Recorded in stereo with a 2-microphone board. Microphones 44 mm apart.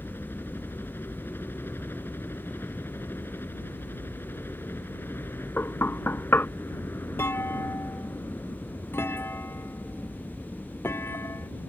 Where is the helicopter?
65° left (ahead or behind).